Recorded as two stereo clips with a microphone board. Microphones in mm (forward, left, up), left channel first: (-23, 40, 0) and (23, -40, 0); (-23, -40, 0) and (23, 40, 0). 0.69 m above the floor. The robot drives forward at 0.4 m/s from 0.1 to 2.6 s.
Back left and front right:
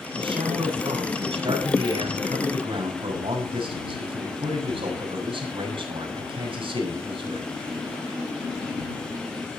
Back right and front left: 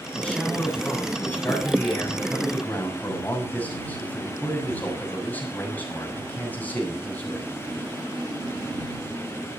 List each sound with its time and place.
0.1 s a man speaking: 40° right, 6.5 m; by 7.5 s 50° right, 6 m